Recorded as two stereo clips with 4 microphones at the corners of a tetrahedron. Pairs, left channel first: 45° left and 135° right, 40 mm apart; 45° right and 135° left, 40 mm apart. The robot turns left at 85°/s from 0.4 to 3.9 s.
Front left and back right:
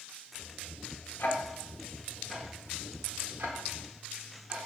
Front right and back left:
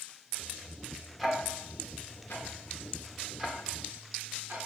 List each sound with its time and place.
1.2 s ticking: 40° left, 1.4 m; by 4.7 s 170° left, 1.4 m